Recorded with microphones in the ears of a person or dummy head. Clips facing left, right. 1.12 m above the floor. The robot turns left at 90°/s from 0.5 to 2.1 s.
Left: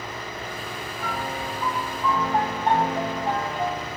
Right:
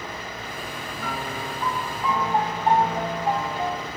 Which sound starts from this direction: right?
A piano, at 1.0 s.